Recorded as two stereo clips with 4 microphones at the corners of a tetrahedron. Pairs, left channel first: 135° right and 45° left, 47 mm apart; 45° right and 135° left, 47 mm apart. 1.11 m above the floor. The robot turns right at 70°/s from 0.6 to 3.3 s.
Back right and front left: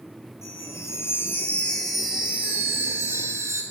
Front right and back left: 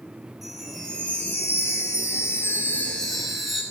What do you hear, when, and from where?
0.4 s a chime: 140° right, 9.5 m; by 3.6 s 50° left, 9.5 m